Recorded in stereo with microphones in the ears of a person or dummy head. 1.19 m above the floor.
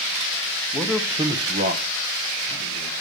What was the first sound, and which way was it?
A man speaking, 10° left (ahead or behind).